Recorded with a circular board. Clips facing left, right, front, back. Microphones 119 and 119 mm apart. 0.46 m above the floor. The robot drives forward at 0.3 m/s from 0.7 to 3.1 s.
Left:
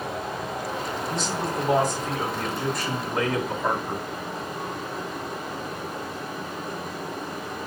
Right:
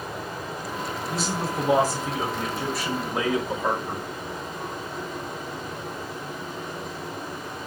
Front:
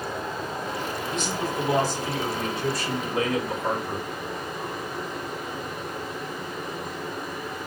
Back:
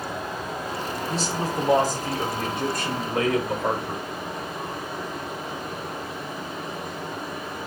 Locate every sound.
0.0 s running water: 100° left, 2 m; by 7.7 s 120° left, 2.5 m
1.1 s a man speaking: 170° right, 1.2 m; by 4.0 s 175° right, 1.6 m